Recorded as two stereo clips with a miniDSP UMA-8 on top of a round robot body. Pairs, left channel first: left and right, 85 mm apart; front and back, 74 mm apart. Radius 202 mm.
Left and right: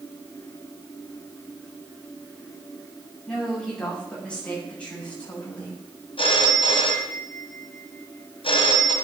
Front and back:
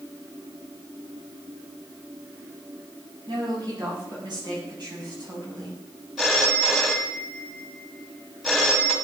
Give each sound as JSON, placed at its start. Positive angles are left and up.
{"t": 3.3, "sound": "a woman speaking", "azimuth_deg": 170, "distance_m": 8.5}
{"t": 6.2, "sound": "a phone ringing", "azimuth_deg": 90, "distance_m": 1.9}